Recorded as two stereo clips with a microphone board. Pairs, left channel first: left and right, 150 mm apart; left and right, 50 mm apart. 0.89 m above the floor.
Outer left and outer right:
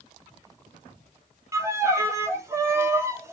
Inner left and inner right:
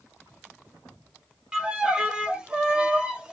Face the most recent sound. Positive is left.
turn(degrees=-20)  # may be behind; listen again after turning